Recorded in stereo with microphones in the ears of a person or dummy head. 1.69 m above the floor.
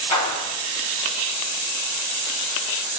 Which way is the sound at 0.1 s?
30° left (ahead or behind).